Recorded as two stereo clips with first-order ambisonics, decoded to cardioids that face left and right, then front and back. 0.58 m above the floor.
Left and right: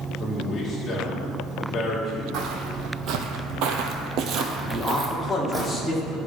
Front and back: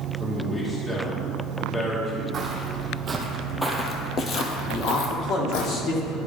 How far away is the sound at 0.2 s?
About 1.1 m.